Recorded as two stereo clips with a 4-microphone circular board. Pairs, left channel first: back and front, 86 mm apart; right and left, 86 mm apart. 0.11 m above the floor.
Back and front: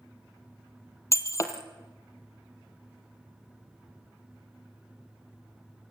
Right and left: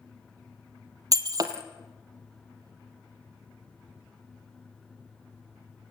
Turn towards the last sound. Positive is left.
turn(degrees=130)